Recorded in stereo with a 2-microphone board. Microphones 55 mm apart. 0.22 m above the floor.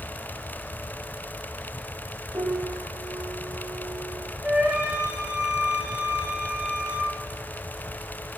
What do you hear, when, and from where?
2.3 s a piano: 75° right (ahead or behind), 9 m
4.4 s a flute: 15° right (ahead or behind), 5 m